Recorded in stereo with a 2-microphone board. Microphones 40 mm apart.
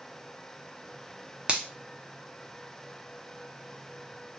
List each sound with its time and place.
1.5 s a finger snap: 30° right (ahead or behind), 0.6 m